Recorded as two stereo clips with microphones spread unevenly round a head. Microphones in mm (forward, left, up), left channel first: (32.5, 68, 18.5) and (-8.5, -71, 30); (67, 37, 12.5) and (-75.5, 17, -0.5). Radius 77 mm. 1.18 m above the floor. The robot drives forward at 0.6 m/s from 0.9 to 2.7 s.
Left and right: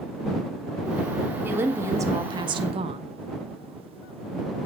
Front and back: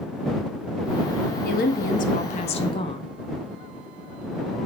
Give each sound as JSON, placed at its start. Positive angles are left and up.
{"t": 1.4, "sound": "a woman speaking", "azimuth_deg": -30, "distance_m": 1.5}